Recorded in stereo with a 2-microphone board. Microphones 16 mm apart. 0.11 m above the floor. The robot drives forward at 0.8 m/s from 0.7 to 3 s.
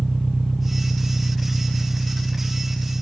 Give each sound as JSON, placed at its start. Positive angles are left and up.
{"t": 0.0, "sound": "an engine running", "side_deg": 20}